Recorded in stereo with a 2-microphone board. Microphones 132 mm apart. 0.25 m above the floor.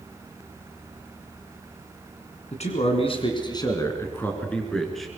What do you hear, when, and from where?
2.5 s a man speaking: 60° left (ahead or behind), 3 m; by 5.1 s centre (ahead or behind), 4 m